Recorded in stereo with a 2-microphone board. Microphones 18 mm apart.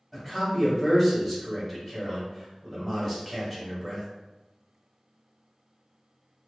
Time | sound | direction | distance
0.1 | a man speaking | 5° left (ahead or behind) | 1.3 m